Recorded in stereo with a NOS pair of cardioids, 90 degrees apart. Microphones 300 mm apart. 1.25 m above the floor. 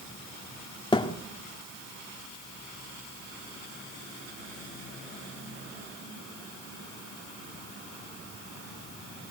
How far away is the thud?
About 1.5 m.